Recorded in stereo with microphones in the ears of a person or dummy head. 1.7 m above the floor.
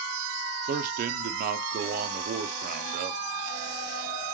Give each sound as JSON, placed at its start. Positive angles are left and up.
{"t": 0.7, "sound": "a man speaking", "side_deg": -45, "distance_m": 0.6}